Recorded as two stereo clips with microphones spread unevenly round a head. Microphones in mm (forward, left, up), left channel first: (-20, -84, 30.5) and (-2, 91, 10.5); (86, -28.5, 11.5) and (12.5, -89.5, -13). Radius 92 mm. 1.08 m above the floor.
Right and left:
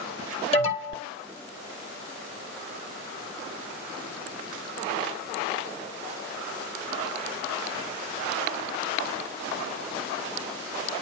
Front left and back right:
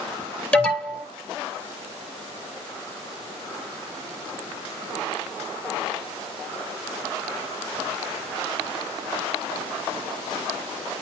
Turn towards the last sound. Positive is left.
turn(degrees=-35)